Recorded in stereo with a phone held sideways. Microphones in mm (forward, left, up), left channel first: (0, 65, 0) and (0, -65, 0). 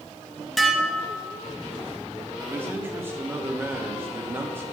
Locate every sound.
0.6 s dishes clattering: centre (ahead or behind), 0.8 m
2.5 s a man speaking: 15° right (ahead or behind), 1.2 m